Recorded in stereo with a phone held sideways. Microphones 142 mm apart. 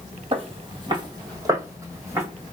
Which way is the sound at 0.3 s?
40° right (ahead or behind).